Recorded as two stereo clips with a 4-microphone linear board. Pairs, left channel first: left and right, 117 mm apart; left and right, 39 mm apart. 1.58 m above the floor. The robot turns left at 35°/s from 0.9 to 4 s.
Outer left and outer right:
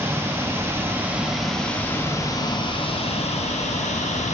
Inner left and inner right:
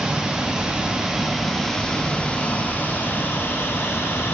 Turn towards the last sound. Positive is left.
turn(degrees=90)